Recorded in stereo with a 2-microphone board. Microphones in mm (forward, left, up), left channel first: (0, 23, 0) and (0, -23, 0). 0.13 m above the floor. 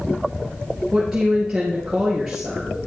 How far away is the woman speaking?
About 2 m.